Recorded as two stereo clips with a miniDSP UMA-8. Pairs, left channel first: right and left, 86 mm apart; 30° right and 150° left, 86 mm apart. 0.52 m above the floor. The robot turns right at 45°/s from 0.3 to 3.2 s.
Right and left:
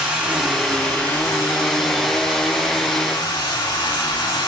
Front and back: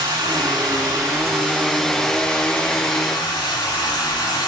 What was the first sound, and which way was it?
Running water, 170° left.